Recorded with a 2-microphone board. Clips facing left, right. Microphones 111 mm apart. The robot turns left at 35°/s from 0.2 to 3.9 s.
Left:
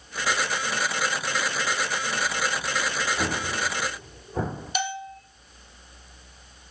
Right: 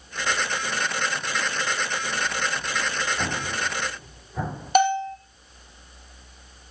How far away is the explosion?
About 3 m.